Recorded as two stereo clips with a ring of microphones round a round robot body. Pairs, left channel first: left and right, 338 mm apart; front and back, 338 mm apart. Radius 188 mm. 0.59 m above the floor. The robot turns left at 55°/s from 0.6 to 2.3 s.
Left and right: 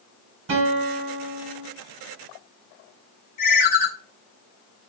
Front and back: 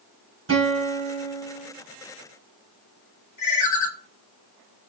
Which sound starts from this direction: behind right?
A guitar, at 0.5 s.